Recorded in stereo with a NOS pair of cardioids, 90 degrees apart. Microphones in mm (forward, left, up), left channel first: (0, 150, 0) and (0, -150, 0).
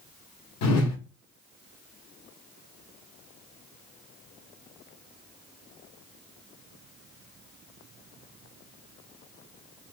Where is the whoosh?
60° left, 0.8 m.